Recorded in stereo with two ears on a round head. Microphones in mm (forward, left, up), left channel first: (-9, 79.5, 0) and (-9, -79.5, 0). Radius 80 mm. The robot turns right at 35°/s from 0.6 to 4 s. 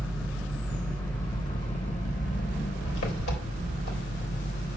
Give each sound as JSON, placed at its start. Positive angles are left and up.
{"t": 0.0, "sound": "an engine running", "azimuth_deg": -5, "distance_m": 3.5}